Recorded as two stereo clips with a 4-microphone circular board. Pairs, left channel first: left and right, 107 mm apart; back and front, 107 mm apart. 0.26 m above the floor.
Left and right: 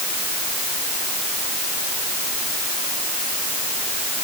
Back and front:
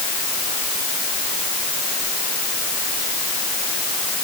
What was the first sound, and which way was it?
Only background noise.